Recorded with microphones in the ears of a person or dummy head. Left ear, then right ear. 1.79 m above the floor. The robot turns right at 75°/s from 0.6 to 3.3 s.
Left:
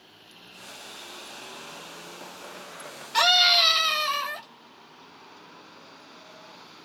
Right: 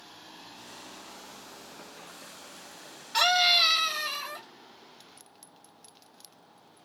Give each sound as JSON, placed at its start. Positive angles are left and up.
{"t": 3.1, "sound": "a scream", "side_deg": 0, "distance_m": 1.5}